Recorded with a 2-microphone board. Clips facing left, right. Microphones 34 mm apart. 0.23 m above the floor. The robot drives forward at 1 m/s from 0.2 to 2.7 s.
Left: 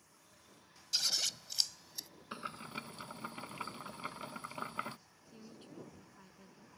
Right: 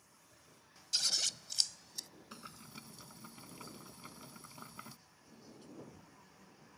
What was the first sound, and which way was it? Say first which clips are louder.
Scissors: even; 5° left (ahead or behind).